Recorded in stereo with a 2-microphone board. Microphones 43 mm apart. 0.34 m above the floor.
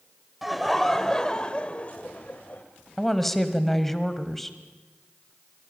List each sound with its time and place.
0.4 s laughter: 5° right (ahead or behind), 1.4 m; by 2.6 s 45° left (ahead or behind), 1.6 m
3.0 s a woman speaking: 5° left (ahead or behind), 1.6 m